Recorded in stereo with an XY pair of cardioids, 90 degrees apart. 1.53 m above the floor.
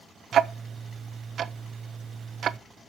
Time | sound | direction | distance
0.3 | ticking | 65° right | 0.6 m